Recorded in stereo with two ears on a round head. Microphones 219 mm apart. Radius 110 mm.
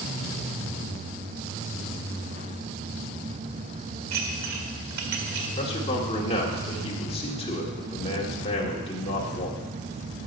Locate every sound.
4.1 s dishes clattering: 80° right, 1.8 m
5.6 s a man speaking: 25° left (ahead or behind), 1.9 m